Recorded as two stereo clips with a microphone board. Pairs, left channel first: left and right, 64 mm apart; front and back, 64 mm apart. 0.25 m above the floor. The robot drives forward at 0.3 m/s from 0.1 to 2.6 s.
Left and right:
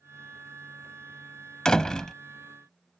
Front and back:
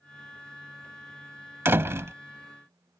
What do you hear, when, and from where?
1.6 s a door slam: 165° left